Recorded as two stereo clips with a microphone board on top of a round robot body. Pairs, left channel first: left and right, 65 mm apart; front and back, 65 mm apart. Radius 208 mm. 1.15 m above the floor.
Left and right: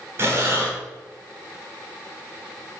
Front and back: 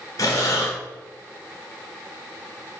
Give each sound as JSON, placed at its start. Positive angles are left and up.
{"t": 0.2, "sound": "breathing", "azimuth_deg": -35, "distance_m": 2.0}